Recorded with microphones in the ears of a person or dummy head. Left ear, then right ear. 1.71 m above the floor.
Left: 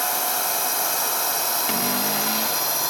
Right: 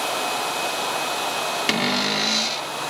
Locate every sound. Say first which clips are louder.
0.0 s a drone: right 1 dB; 40° left (ahead or behind); by 2.9 s 60° left (ahead or behind)
1.7 s a cupboard door: right 3 dB; 10° right (ahead or behind)